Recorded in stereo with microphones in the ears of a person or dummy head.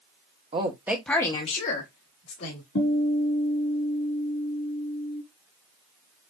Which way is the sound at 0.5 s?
30° right (ahead or behind).